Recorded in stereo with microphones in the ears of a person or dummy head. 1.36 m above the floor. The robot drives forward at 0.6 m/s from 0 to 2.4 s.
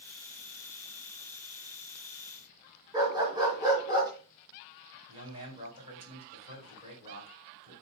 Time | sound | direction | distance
2.9 | a dog barking | 20° right (ahead or behind) | 3.5 m
5.1 | a man speaking | 25° right (ahead or behind) | 5 m